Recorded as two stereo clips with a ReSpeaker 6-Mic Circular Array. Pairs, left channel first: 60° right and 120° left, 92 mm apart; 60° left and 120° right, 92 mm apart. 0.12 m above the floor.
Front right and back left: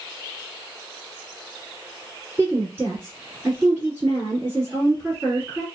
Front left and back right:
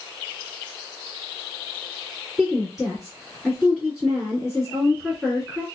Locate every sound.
2.4 s a woman speaking: 160° left, 1.3 m